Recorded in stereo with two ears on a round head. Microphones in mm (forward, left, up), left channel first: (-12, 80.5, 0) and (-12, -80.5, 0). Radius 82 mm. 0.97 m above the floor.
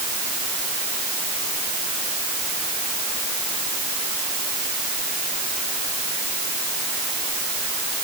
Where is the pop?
No pop in this recording.